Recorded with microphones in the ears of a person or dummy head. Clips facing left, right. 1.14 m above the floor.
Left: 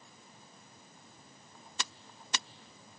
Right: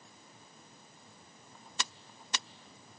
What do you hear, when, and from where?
Only background noise.